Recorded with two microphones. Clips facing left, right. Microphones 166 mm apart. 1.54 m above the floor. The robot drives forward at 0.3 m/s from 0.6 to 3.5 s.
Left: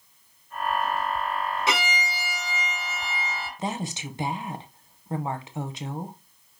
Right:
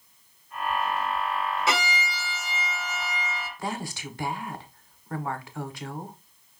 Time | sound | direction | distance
1.7 | a violin | 15° left (ahead or behind) | 2.5 m
3.6 | a woman speaking | 20° left (ahead or behind) | 0.6 m